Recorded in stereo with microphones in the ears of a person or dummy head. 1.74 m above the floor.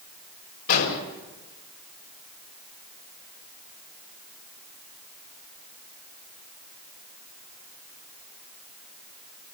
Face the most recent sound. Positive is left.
turn(degrees=65)  # may be behind; listen again after turning